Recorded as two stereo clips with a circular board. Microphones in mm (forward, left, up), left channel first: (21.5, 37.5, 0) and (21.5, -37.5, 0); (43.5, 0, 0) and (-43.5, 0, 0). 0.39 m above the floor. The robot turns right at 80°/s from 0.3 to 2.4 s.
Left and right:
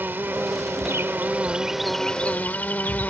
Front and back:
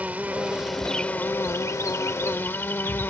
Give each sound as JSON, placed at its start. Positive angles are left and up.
{"t": 0.0, "sound": "an insect", "azimuth_deg": -125}